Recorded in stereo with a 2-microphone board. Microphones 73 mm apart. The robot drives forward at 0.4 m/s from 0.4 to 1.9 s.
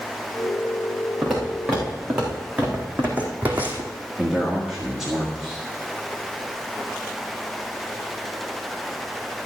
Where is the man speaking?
5° right (ahead or behind), 1.6 m.